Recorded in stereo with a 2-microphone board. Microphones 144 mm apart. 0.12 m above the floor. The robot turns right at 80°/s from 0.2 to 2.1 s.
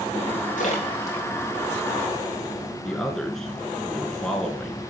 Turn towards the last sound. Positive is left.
turn(degrees=0)  # may be behind; listen again after turning